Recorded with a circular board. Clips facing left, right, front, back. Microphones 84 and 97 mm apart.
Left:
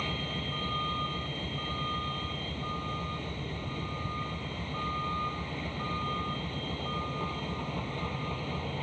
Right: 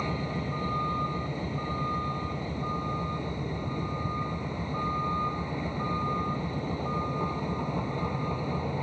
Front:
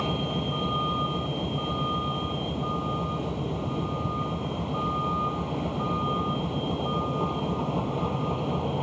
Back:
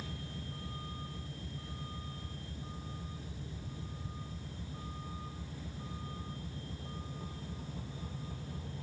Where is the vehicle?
15° right.